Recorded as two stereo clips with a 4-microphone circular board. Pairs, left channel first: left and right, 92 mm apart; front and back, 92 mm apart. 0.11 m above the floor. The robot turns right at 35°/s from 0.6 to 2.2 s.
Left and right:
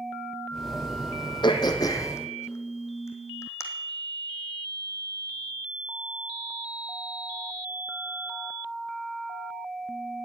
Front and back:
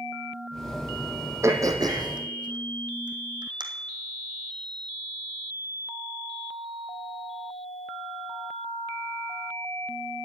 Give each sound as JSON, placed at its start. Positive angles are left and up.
{"t": 1.4, "sound": "throat clearing", "azimuth_deg": 120, "distance_m": 1.7}